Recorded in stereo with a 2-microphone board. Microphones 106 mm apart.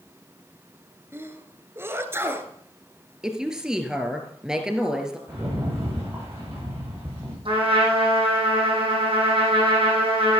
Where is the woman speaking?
5° right (ahead or behind), 2 m.